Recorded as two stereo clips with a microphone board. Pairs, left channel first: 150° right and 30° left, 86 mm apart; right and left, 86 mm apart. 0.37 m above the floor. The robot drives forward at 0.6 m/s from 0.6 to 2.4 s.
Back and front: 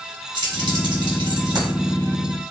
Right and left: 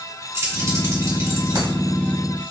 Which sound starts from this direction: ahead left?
Keys jangling, at 0.3 s.